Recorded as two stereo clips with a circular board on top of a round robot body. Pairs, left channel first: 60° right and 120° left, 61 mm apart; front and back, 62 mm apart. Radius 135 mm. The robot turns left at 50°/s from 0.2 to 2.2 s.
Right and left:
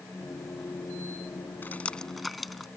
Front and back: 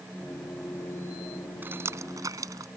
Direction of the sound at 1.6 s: 120° right.